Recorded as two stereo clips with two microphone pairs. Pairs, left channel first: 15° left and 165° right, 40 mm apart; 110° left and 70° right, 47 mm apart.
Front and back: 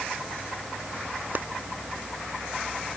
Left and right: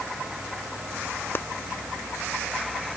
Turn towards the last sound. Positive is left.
turn(degrees=155)